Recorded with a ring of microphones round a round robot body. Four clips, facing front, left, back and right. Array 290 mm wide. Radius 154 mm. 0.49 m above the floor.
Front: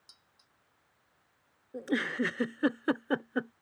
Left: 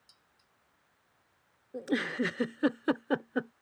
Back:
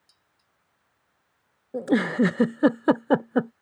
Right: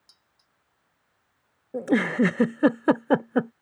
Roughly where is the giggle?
Behind right.